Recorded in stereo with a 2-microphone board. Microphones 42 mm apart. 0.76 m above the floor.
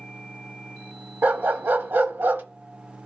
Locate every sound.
1.2 s a dog barking: 60° right (ahead or behind), 0.8 m